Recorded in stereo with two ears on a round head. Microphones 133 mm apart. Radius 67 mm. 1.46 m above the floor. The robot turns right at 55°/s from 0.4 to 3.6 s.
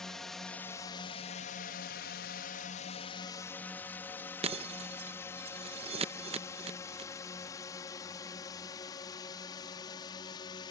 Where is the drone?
5° left (ahead or behind); by 10.7 s 30° left (ahead or behind).